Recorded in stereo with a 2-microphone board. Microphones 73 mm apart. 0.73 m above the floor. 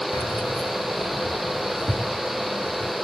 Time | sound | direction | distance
0.1 | keys jangling | 65° left (ahead or behind) | 1.0 m